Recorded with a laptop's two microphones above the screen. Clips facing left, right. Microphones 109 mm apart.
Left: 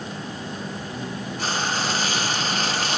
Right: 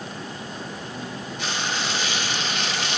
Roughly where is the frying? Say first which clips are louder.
Left 3 dB; left.